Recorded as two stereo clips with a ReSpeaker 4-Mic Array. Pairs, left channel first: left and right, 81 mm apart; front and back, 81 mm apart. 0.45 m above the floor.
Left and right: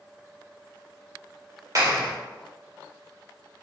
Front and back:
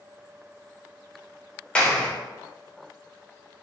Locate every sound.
1.8 s a clap: 70° right, 1.4 m